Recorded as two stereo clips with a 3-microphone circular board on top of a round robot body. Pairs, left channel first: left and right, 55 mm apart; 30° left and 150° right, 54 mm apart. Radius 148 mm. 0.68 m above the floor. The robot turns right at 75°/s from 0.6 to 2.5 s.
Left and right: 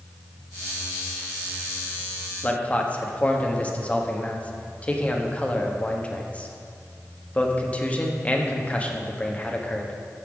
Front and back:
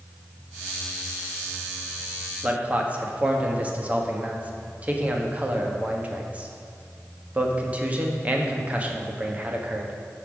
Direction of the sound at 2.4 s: 145° left.